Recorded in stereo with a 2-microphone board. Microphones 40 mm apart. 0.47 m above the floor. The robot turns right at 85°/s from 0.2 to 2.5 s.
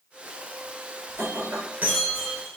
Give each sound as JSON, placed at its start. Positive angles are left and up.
{"t": 1.1, "sound": "breaking glass", "azimuth_deg": -115, "distance_m": 4.5}